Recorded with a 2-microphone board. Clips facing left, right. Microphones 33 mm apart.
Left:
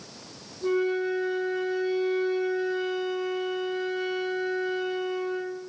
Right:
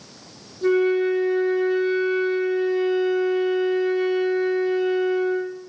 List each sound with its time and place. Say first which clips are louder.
0.6 s a flute: right 7 dB; 70° right (ahead or behind), 4 m